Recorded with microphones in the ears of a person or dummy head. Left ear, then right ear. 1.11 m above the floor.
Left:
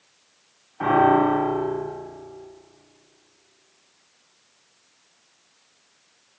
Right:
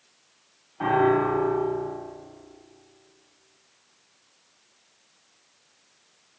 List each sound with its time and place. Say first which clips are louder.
0.8 s a piano: left 4 dB; 10° left (ahead or behind), 8 m